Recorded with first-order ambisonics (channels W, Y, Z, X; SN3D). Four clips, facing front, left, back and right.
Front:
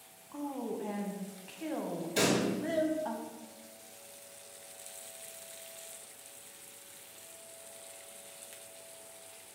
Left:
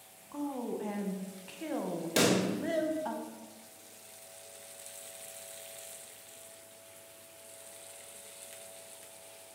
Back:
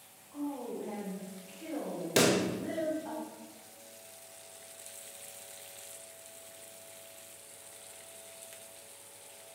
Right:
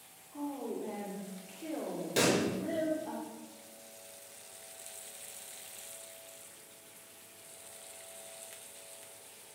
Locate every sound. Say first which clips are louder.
0.3 s a woman speaking: left 2 dB, even; 60° left, 0.6 m
2.2 s a pop: left 1 dB, back 3 dB; 160° left, 0.6 m